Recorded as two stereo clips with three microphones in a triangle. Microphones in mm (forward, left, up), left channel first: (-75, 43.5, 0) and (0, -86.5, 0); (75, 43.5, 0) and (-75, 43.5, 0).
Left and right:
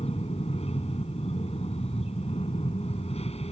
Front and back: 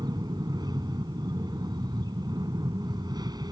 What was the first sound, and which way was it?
An aircraft, 130° left.